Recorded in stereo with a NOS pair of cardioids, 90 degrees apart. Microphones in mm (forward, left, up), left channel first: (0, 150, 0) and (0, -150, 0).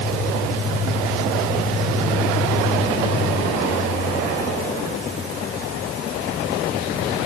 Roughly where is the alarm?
I don't hear an alarm.